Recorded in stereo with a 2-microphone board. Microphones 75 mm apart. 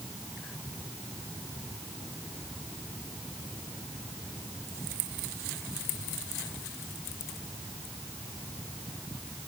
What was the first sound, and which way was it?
Only background noise.